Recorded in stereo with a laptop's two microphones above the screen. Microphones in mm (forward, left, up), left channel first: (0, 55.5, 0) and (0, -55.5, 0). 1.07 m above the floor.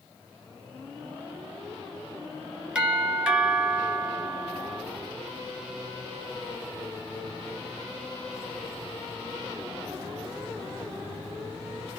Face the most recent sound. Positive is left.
turn(degrees=-10)  # may be behind; listen again after turning